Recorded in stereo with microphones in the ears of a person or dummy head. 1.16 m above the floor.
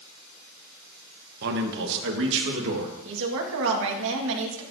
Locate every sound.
1.4 s a man speaking: 55° right (ahead or behind), 1.0 m; by 2.9 s 75° right (ahead or behind), 1.9 m
3.0 s a woman speaking: 75° right (ahead or behind), 1.5 m